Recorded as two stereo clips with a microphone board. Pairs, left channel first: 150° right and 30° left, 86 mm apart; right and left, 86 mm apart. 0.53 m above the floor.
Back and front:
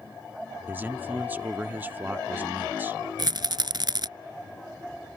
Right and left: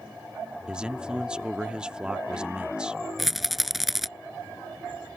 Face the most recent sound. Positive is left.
turn(degrees=0)